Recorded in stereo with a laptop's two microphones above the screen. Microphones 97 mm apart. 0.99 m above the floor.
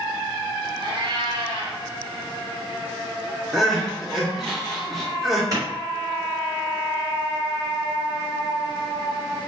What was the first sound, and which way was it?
A cat meowing, 60° right (ahead or behind).